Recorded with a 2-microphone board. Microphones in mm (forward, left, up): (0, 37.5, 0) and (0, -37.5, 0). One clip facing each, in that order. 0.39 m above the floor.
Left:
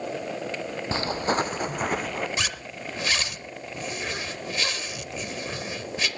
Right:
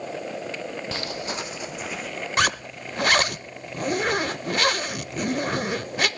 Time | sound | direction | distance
0.9 | footsteps | 30° left (ahead or behind) | 0.6 m
2.4 | a zipper | 55° right (ahead or behind) | 0.6 m